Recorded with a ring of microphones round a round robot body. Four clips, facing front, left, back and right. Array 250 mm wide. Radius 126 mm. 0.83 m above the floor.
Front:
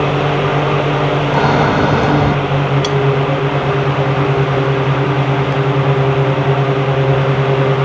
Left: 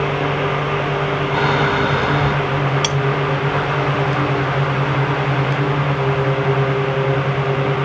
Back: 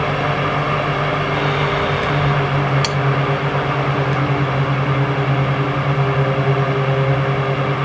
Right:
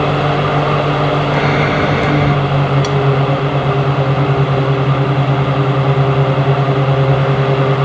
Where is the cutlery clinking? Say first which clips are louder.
Right 5 dB, front 6 dB; 130° left.